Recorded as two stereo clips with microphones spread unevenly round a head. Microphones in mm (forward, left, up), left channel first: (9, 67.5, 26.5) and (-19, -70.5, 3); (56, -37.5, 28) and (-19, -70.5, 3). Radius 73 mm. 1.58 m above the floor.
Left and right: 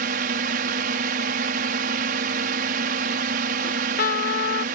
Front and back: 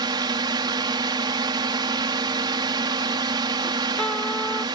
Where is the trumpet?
105° left.